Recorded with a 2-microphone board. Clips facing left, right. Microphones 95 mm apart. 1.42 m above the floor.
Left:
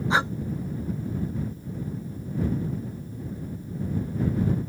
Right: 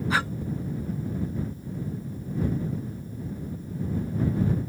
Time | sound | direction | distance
0.1 | breathing | 20° left (ahead or behind) | ?